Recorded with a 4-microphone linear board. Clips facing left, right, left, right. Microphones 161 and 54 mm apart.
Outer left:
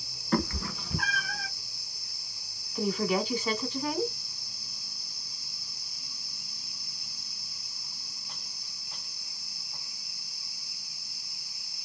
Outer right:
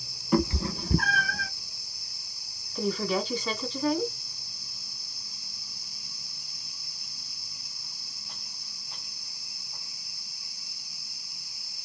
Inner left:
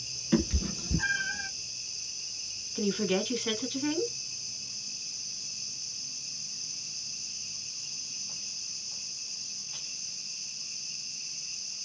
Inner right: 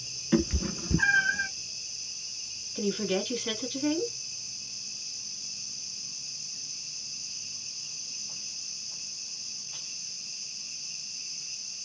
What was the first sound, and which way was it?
A cat meowing, 10° right (ahead or behind).